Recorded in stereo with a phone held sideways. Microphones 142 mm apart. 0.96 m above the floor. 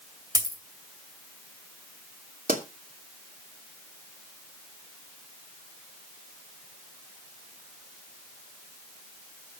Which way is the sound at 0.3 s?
25° right (ahead or behind).